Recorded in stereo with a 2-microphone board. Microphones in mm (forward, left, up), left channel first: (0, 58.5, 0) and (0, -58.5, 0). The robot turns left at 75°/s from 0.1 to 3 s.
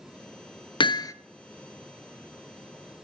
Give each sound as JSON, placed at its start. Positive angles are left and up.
{"t": 0.8, "sound": "hammering", "side_deg": 45, "distance_m": 0.9}